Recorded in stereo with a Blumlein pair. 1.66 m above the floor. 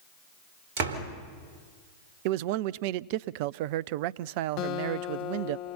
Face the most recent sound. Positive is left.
turn(degrees=40)